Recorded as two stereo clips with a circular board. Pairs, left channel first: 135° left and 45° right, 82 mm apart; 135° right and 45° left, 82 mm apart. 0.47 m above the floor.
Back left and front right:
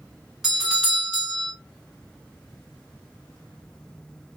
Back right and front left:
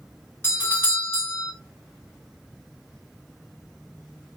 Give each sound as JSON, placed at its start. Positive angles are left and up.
{"t": 0.4, "sound": "a doorbell", "azimuth_deg": -125, "distance_m": 1.2}